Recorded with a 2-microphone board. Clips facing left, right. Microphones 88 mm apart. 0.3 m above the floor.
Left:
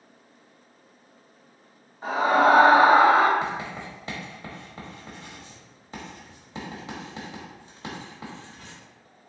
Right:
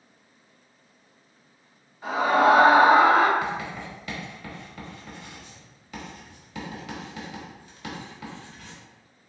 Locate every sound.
2.0 s a scream: 35° left (ahead or behind), 1.4 m
3.4 s writing: 30° left (ahead or behind), 1.1 m